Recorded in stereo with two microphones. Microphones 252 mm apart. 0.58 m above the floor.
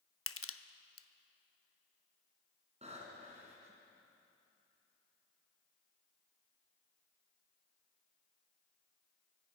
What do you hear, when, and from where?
0.3 s crushing: 60° left (ahead or behind), 0.7 m
2.8 s breathing: 25° right (ahead or behind), 3.5 m